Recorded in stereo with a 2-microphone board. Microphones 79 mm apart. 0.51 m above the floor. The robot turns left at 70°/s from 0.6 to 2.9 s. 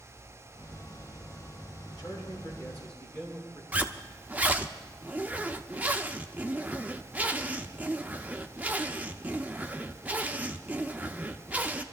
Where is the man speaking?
85° left, 6 m; by 3.6 s 15° left, 6 m.